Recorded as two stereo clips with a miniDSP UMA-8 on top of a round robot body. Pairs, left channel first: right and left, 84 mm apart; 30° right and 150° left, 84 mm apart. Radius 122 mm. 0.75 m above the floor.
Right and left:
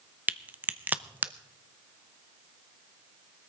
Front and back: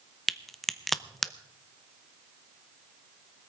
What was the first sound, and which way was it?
A crack, 55° left.